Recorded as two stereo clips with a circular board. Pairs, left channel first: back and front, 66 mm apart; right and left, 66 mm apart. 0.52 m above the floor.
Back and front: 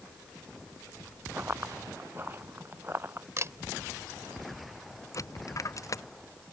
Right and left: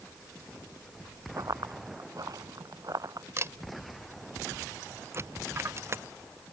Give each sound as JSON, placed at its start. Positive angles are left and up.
{"t": 1.4, "sound": "running footsteps", "azimuth_deg": 60}
{"t": 3.4, "sound": "a camera shutter", "azimuth_deg": 45}
{"t": 5.1, "sound": "a dropped coin", "azimuth_deg": 140}